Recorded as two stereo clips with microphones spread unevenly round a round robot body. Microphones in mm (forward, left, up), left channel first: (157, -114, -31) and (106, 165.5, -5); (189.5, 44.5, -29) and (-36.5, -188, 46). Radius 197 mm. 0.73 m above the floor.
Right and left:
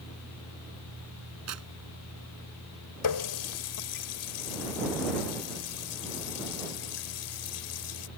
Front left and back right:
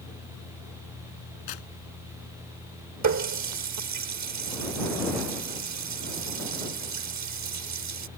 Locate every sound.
1.5 s tearing paper: 70° left
3.0 s a running tap: 95° right